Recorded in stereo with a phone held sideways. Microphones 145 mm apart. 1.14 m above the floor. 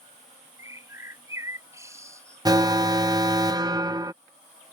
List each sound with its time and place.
0.6 s a bird: 20° right (ahead or behind)
2.5 s an alarm: 25° right (ahead or behind)